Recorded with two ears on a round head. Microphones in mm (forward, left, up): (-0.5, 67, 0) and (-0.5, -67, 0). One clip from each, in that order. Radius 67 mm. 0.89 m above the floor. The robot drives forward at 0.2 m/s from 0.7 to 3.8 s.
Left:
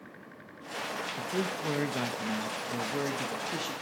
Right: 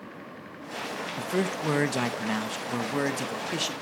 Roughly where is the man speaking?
Right.